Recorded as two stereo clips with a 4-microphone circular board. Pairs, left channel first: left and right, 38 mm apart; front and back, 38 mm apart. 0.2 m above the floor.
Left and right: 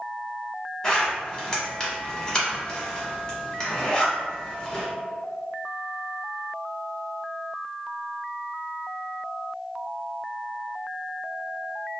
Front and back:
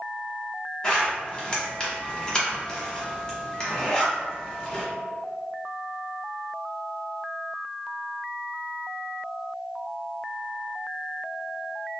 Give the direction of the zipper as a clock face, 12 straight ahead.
11 o'clock.